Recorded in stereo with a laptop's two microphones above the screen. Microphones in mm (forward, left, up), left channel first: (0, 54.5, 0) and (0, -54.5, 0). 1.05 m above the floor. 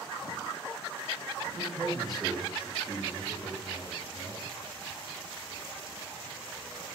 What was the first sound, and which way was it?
A man speaking, 25° right (ahead or behind).